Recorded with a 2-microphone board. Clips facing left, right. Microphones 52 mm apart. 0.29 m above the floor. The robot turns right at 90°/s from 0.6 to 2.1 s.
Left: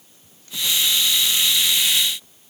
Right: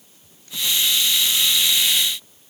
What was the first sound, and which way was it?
Only background noise.